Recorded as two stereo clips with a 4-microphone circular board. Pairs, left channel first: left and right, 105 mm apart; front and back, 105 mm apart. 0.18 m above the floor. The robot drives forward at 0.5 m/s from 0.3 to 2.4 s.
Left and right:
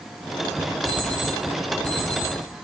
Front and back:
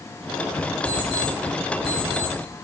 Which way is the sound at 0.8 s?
140° right.